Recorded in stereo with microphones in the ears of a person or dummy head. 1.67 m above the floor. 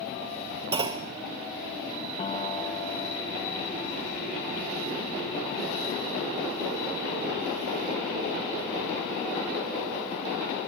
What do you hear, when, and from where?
0.7 s a clunk: 15° right (ahead or behind), 0.6 m
2.2 s a piano: 25° left (ahead or behind), 1.0 m